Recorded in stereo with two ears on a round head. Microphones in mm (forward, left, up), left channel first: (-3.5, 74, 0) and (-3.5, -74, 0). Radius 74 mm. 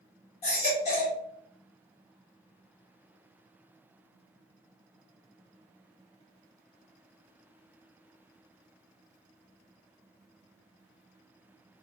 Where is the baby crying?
45° left (ahead or behind), 1.7 m.